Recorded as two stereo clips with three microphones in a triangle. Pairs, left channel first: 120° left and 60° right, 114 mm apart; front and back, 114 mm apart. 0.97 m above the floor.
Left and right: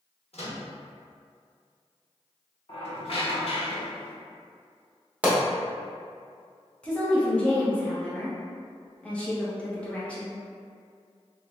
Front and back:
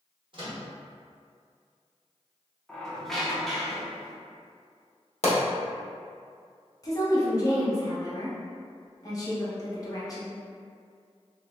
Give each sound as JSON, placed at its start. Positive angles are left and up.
{"t": 0.3, "sound": "a microwave", "azimuth_deg": 140, "distance_m": 1.2}
{"t": 2.7, "sound": "a squeak", "azimuth_deg": 85, "distance_m": 0.9}
{"t": 5.2, "sound": "a pop", "azimuth_deg": 20, "distance_m": 1.1}
{"t": 6.8, "sound": "a woman speaking", "azimuth_deg": 45, "distance_m": 1.0}